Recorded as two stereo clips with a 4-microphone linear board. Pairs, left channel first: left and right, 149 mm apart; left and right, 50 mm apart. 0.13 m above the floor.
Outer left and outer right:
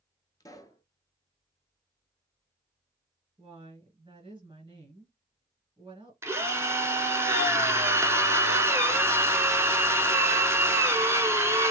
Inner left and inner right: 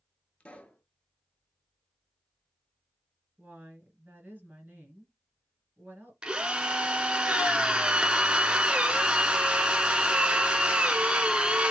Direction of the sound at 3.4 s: 35° right (ahead or behind).